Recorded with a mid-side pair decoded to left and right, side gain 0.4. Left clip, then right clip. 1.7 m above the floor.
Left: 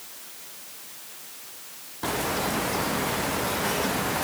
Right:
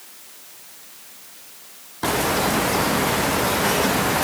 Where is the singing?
I don't hear singing.